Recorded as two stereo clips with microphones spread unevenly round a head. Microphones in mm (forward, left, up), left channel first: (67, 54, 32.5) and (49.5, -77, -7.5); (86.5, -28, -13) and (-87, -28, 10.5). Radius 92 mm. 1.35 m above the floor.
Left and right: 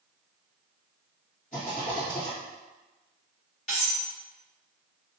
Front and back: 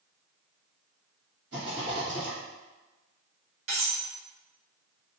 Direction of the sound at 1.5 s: 140° left.